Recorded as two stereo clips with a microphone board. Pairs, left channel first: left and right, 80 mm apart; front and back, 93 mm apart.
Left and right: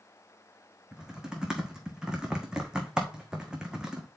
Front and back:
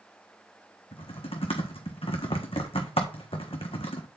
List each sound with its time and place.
0.9 s typing on a keyboard: 10° right, 1.9 m